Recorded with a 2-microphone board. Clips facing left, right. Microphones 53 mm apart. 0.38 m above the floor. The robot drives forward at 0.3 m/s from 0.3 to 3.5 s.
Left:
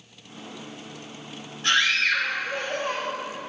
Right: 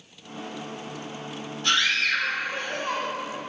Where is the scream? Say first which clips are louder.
Left 2 dB; 50° left (ahead or behind), 1.2 m.